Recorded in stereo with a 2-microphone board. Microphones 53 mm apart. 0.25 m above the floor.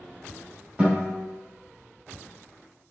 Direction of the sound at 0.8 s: 15° right (ahead or behind).